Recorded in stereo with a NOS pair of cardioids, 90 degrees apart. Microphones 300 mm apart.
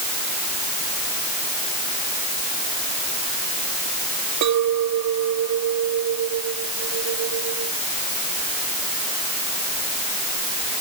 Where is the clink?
70° right.